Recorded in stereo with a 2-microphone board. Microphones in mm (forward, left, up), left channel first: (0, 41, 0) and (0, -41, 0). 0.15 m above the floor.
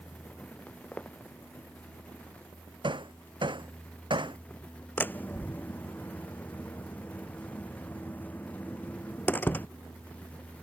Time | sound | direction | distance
0.7 | footsteps | 20° left (ahead or behind) | ?
2.8 | hammering | 75° right (ahead or behind) | ?
5.0 | a door slam | 20° left (ahead or behind) | ?